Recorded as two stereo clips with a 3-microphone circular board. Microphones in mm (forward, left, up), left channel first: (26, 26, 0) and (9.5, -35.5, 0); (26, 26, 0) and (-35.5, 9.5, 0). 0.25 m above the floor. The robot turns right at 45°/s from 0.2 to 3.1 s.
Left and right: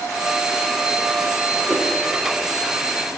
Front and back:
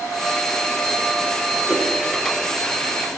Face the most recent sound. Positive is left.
turn(degrees=-150)